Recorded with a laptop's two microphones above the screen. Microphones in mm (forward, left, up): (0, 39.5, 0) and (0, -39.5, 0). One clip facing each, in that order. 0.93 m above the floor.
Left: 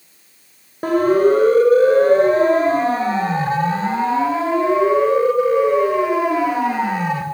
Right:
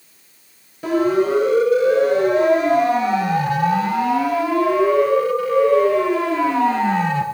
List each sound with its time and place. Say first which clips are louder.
0.8 s a siren: left 3 dB; 50° left (ahead or behind), 6 m; by 7.2 s 10° left (ahead or behind), 6 m